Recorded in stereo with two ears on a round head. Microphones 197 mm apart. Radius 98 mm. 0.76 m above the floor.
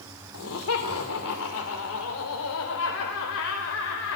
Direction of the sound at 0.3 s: 70° left (ahead or behind).